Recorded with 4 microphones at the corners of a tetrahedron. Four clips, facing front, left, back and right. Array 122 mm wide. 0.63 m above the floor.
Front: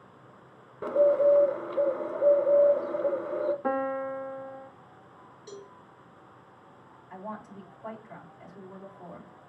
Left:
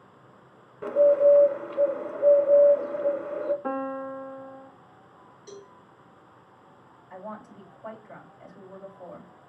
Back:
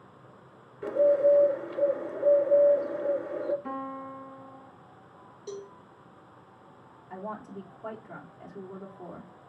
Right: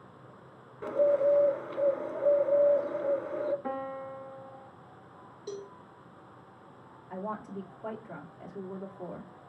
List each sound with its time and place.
0.8 s a bird: 25° left, 0.8 m
3.6 s a piano: 20° left, 0.5 m
5.5 s a cowbell: 120° right, 1.0 m
7.1 s a woman speaking: 130° right, 1.5 m